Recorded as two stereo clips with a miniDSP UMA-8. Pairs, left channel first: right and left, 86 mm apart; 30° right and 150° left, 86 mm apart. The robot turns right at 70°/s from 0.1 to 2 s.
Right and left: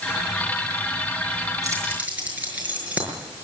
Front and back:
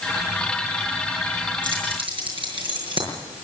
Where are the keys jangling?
135° left, 6.5 m; by 3.1 s 165° left, 6.5 m.